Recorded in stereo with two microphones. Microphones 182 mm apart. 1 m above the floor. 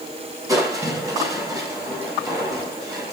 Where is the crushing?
20° right (ahead or behind), 5.5 m.